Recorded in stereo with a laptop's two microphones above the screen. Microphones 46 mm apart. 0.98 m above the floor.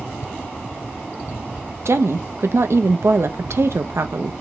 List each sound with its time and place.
1.9 s a woman speaking: 70° right (ahead or behind), 0.6 m